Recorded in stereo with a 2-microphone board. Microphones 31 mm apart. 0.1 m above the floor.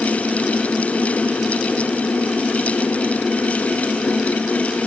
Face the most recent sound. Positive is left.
No sound to turn to.